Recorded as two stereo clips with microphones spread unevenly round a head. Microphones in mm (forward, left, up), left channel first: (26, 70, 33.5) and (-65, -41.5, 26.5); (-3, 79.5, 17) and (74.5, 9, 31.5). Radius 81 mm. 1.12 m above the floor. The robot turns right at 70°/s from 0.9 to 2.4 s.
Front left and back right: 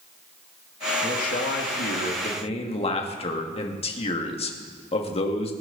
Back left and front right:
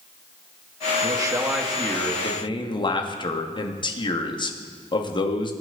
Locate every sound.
1.0 s a man speaking: 5° left, 2.5 m; by 5.5 s 100° left, 2.5 m